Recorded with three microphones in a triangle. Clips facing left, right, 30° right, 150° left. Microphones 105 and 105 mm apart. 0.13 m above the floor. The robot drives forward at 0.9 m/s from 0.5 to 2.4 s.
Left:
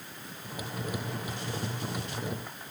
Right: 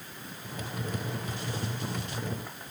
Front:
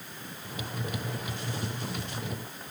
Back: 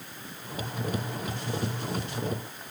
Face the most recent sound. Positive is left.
No sound to turn to.